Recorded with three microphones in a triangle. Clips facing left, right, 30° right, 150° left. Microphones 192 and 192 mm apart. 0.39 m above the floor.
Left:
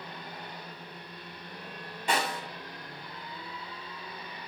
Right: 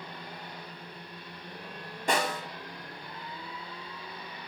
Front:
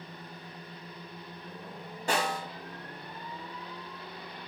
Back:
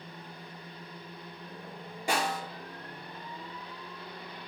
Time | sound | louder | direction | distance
2.1 | a snare drum | right 2 dB, front 1 dB | 130° right | 1.3 m